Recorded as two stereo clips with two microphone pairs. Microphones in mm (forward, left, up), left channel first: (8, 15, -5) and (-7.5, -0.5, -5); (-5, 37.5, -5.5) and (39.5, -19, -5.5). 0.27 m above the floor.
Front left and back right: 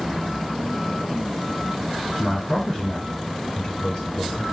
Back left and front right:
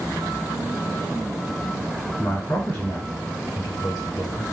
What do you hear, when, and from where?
2.2 s a man speaking: 100° left, 1.2 m; by 4.4 s straight ahead, 1.4 m